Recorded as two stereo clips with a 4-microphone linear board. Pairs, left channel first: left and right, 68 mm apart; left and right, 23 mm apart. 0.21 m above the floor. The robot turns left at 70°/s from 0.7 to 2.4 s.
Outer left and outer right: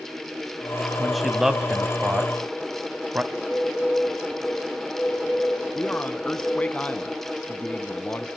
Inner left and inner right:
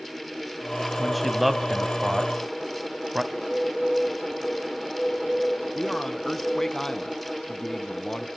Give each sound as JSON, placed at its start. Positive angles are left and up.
{"t": 1.0, "sound": "a man speaking", "side_deg": 5, "distance_m": 1.4}
{"t": 3.3, "sound": "a bird", "side_deg": 10, "distance_m": 3.0}
{"t": 5.8, "sound": "a man speaking", "side_deg": 20, "distance_m": 2.0}